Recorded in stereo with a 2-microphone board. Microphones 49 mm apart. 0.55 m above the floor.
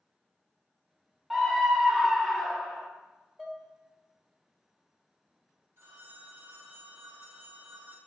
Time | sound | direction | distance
1.3 | a scream | 5° right (ahead or behind) | 0.8 m
3.4 | dishes clattering | 5° left (ahead or behind) | 1.4 m
5.8 | a phone ringing | 55° right (ahead or behind) | 3 m